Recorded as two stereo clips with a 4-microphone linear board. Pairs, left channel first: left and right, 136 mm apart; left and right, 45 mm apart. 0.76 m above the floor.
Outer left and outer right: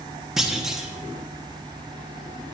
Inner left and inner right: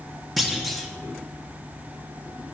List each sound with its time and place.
0.4 s a clunk: centre (ahead or behind), 1.0 m